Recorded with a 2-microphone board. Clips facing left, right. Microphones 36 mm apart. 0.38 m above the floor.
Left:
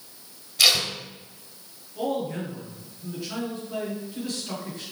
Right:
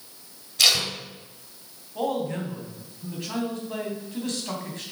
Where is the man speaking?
60° right (ahead or behind), 3.5 m.